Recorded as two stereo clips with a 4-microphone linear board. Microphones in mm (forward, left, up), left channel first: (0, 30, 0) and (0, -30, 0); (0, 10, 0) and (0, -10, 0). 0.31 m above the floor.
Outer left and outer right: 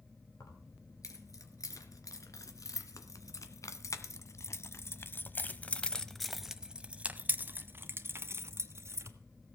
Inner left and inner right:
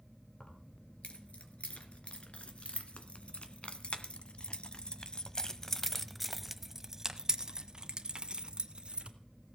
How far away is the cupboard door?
No cupboard door in this recording.